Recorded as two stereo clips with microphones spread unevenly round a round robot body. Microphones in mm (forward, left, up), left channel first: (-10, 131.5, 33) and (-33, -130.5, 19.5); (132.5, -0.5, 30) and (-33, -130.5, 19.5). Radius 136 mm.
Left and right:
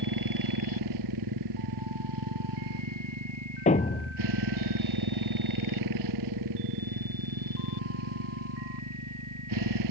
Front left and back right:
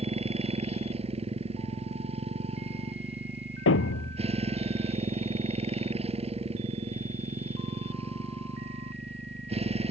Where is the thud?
20° left.